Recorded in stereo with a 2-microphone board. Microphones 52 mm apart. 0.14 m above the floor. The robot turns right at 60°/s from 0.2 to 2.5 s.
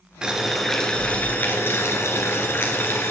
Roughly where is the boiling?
Ahead.